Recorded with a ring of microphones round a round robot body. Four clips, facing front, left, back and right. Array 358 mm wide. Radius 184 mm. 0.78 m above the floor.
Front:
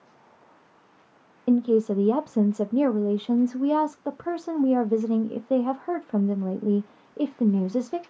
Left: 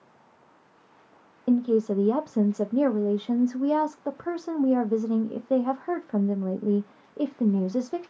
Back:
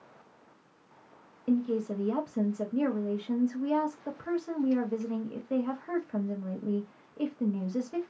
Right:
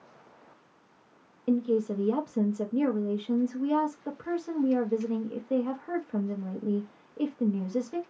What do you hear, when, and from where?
1.5 s a woman speaking: 35° left, 0.6 m